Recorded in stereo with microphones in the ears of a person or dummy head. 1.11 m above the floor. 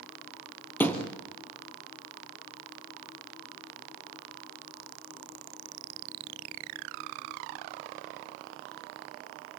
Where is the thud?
15° left (ahead or behind), 2 m.